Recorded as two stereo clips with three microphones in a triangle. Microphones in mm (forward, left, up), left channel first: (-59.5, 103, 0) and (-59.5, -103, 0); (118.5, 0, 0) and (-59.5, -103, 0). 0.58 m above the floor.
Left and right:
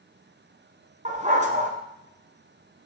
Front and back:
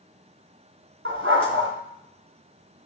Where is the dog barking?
145° right, 2.0 m.